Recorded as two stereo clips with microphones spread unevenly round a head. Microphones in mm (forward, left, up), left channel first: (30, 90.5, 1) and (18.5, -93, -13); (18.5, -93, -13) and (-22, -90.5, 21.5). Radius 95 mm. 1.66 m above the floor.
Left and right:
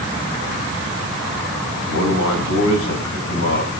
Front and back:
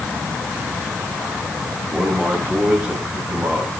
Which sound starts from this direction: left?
A man speaking, at 1.9 s.